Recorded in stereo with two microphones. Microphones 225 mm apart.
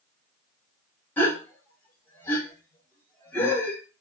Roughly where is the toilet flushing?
No toilet flushing in this recording.